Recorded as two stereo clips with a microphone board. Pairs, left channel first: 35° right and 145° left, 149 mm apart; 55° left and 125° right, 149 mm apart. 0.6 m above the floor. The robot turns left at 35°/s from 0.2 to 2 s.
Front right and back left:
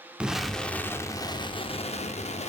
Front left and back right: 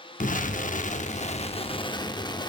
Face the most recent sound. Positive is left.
turn(degrees=0)